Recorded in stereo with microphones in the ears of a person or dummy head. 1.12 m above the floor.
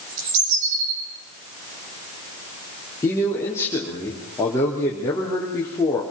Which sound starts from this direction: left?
A man speaking, at 3.0 s.